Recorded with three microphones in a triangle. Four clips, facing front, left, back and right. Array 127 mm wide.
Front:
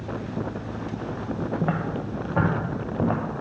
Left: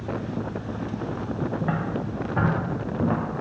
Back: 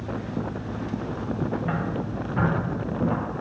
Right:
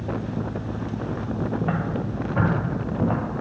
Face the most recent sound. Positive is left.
turn(degrees=0)